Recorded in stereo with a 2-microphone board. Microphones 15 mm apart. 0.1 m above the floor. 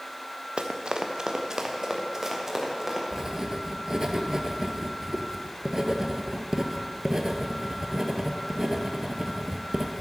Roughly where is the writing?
Right.